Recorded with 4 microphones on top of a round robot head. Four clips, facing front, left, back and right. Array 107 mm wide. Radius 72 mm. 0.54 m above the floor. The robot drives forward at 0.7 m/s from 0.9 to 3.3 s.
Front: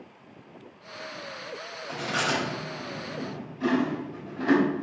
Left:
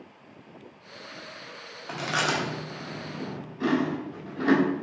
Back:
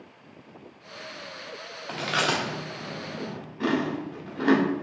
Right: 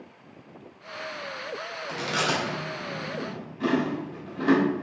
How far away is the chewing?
About 1.1 m.